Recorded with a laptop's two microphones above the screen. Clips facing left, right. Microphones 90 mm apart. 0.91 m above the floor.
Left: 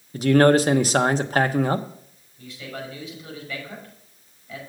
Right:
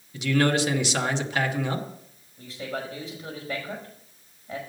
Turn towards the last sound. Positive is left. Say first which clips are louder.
# right 2 dB
turn(degrees=-35)  # may be behind; listen again after turning